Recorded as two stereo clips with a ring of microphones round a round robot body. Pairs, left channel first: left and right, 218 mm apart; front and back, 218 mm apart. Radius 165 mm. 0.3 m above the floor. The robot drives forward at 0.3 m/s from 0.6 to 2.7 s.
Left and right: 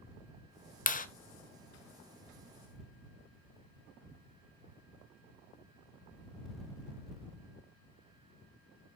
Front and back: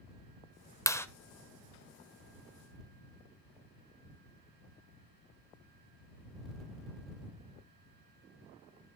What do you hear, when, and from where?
0.9 s a clap: 70° left, 1.4 m; by 1.1 s 75° left, 1.4 m